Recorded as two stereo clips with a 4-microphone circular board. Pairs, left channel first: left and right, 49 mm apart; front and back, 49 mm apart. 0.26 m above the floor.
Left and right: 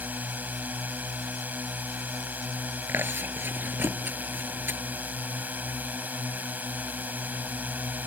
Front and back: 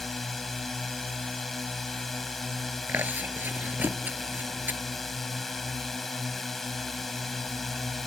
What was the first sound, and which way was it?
A drone, 85° right.